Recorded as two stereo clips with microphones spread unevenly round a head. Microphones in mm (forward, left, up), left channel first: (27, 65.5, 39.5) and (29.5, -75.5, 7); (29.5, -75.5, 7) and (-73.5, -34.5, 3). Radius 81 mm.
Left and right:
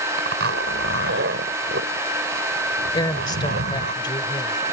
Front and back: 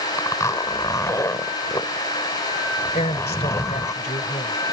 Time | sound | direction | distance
0.2 | a zipper | 85° right | ?
2.9 | a woman speaking | 30° left | ?